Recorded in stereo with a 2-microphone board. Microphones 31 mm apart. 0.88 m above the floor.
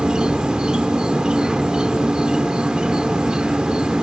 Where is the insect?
25° right (ahead or behind), 0.8 m.